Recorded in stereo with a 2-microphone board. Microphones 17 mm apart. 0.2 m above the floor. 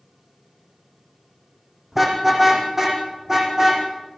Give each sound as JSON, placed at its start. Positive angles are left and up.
{"t": 1.9, "sound": "a car horn", "side_deg": -15, "distance_m": 5.0}